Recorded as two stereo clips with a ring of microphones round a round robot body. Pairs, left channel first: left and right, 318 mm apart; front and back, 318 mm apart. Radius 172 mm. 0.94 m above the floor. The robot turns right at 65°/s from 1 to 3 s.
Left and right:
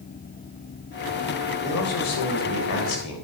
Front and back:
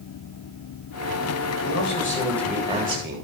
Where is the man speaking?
35° left, 4.5 m; by 3.2 s 125° left, 4.5 m.